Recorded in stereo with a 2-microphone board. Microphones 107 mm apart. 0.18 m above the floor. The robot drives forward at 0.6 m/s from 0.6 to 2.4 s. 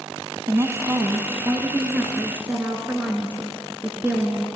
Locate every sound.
0.5 s a woman speaking: 30° right (ahead or behind), 1.2 m; by 4.5 s 15° right (ahead or behind), 1.9 m